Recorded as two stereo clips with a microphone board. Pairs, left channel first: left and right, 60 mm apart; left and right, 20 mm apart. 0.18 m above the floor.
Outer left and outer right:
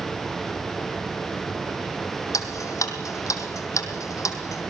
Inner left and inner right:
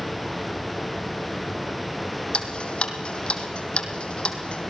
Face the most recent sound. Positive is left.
turn(degrees=60)  # may be behind; listen again after turning